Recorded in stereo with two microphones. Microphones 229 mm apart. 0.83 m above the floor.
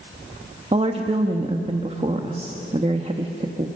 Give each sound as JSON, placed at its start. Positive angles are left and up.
{"t": 0.7, "sound": "a woman speaking", "side_deg": -30, "distance_m": 1.1}